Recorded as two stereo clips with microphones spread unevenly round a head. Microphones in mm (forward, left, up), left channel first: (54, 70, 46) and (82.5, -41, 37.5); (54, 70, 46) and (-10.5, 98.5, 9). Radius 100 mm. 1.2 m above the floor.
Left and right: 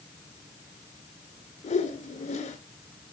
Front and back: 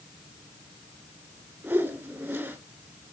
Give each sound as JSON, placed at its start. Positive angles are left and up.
{"t": 1.6, "sound": "a whoosh", "azimuth_deg": 90, "distance_m": 3.5}